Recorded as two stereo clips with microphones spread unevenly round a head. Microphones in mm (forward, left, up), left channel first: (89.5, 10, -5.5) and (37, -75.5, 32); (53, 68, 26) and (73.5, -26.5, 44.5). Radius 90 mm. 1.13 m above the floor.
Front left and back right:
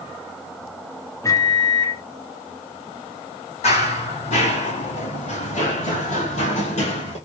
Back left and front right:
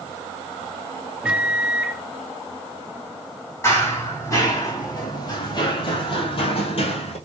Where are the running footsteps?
35° left, 2.5 m; by 7.2 s 105° left, 1.5 m.